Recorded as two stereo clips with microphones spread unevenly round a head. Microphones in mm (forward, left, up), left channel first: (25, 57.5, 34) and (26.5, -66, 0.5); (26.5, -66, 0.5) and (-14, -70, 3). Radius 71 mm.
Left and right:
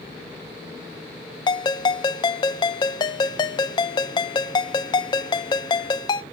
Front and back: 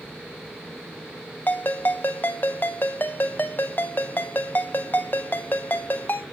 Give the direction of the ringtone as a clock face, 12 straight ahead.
10 o'clock.